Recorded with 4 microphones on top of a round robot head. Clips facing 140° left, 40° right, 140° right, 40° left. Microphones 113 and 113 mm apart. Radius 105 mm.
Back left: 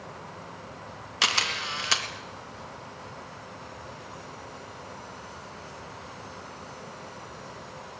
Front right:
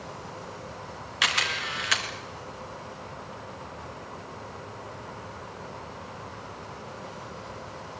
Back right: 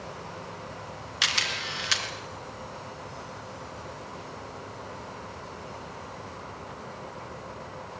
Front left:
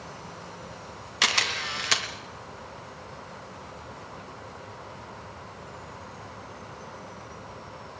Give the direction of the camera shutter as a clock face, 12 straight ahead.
9 o'clock.